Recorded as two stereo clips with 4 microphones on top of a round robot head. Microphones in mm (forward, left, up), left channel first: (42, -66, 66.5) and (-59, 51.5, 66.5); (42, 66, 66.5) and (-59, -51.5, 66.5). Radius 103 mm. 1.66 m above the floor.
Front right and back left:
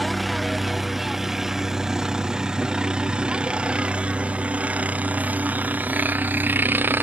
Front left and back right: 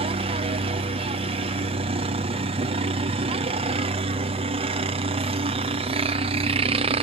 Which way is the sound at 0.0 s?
140° right.